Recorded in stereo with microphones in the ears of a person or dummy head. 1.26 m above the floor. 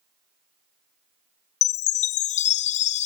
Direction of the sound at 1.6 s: 40° left (ahead or behind).